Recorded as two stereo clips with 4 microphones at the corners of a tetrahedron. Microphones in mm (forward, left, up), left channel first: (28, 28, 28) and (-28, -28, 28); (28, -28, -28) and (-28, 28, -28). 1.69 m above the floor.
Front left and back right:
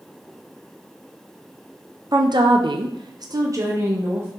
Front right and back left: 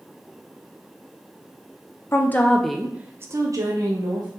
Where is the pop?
No pop in this recording.